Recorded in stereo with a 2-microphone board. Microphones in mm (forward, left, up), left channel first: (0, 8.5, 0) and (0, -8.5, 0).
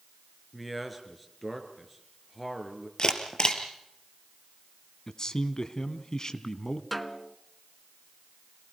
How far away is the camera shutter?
About 3 m.